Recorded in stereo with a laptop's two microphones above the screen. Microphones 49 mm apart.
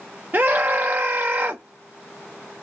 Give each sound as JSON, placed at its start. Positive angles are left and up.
{"t": 0.3, "sound": "a scream", "side_deg": -40, "distance_m": 0.6}